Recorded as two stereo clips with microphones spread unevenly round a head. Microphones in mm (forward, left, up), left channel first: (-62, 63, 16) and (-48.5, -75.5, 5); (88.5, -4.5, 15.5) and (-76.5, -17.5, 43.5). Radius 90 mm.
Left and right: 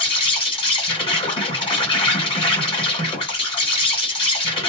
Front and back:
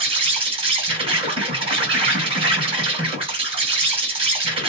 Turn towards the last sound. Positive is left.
turn(degrees=135)